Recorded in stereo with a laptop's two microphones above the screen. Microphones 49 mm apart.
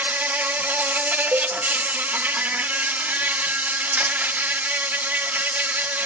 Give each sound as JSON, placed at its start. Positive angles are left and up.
{"t": 0.0, "sound": "an insect", "side_deg": -40, "distance_m": 1.1}
{"t": 1.3, "sound": "a cowbell", "side_deg": -45, "distance_m": 3.0}